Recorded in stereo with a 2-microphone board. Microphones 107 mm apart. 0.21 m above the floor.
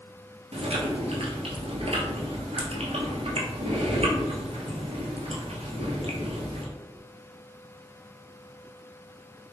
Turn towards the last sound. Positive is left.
turn(degrees=-80)